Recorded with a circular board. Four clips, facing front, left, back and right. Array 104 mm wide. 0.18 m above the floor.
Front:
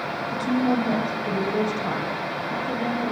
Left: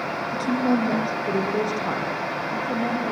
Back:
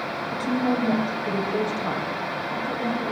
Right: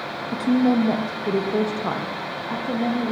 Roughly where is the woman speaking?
Right.